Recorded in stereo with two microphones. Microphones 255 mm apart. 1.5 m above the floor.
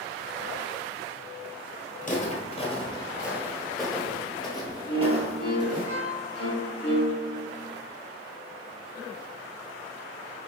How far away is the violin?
About 2 m.